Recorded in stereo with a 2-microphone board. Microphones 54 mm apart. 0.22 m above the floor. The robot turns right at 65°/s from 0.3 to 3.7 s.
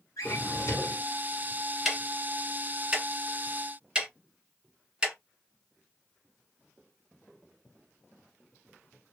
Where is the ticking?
5° right (ahead or behind), 0.9 m; by 5.1 s 20° right (ahead or behind), 0.9 m.